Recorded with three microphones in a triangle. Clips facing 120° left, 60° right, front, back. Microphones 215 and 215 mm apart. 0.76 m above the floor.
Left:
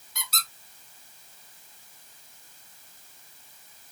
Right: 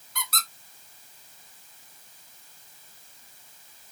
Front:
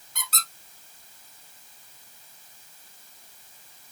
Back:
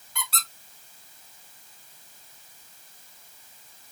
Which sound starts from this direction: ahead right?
A squeak, at 0.1 s.